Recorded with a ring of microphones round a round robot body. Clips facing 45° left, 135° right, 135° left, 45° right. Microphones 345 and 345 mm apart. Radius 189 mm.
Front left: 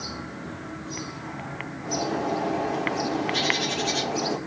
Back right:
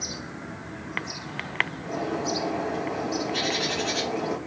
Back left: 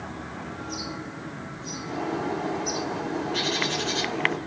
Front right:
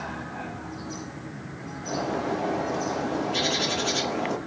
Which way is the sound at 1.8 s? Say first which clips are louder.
Front left 1 dB, even; 10° right.